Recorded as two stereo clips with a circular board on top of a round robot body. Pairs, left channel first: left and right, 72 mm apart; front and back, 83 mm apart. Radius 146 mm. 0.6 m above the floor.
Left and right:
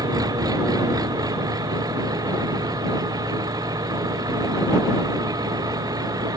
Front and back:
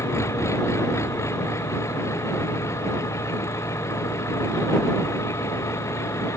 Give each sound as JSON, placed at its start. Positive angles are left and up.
{"t": 0.0, "sound": "an engine running", "azimuth_deg": -60}